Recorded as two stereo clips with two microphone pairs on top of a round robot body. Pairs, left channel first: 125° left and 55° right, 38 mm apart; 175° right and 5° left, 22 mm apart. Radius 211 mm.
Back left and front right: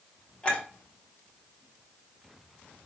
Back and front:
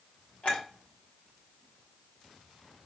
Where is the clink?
170° right, 3 m.